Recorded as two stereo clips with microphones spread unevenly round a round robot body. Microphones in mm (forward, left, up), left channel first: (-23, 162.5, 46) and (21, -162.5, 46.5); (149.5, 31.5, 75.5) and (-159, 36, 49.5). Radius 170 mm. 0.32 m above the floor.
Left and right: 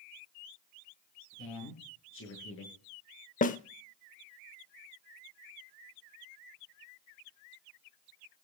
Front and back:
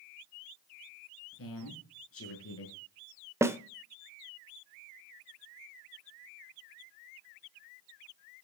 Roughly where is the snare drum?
Behind left.